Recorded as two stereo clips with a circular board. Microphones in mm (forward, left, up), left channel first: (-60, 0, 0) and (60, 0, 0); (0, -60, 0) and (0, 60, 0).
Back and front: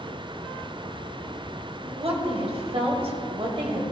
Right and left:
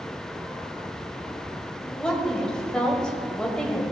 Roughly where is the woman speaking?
Ahead.